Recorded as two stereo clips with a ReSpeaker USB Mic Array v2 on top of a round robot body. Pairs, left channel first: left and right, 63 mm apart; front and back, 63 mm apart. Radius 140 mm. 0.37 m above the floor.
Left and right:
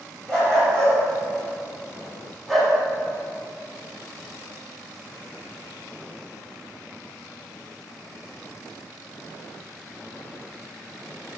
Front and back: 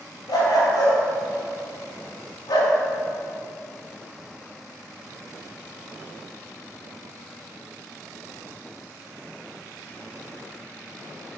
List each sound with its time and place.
0.3 s a dog barking: 15° left, 2.5 m; by 2.8 s straight ahead, 0.9 m